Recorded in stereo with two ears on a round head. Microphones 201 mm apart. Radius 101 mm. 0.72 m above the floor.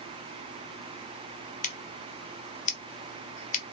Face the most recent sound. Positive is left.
turn(degrees=35)  # may be behind; listen again after turning